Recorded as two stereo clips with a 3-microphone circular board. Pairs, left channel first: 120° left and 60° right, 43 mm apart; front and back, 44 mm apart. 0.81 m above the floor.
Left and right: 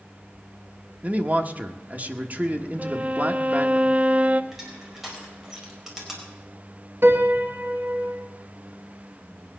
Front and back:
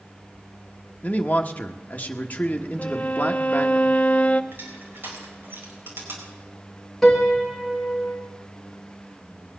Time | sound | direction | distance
1.0 | a man speaking | 30° right | 1.2 m
2.8 | a violin | 30° right | 0.6 m
4.5 | crushing | 145° right | 4.5 m
7.0 | a piano | 85° right | 1.9 m